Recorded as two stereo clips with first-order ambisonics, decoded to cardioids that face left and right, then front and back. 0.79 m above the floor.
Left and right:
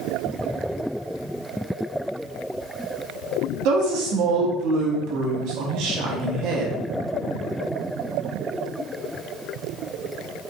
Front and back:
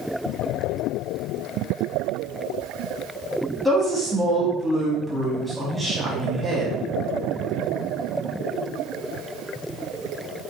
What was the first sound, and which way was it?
A woman speaking, 95° right.